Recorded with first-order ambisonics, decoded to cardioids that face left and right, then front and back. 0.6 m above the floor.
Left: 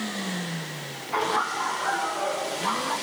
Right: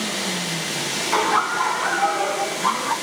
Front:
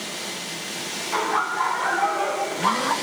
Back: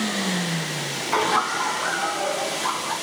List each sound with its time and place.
1.1 s laughter: 110° right, 0.9 m; by 2.9 s 30° right, 2.0 m